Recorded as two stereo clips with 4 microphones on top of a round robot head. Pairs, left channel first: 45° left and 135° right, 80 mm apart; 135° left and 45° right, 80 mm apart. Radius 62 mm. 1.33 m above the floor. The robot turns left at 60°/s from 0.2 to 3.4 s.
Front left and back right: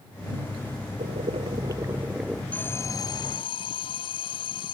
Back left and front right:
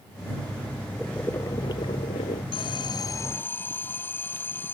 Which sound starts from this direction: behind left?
An alarm, at 2.5 s.